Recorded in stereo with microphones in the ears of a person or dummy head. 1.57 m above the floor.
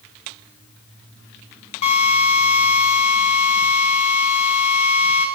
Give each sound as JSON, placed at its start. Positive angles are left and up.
{"t": 1.8, "sound": "a drill", "side_deg": 35, "distance_m": 6.0}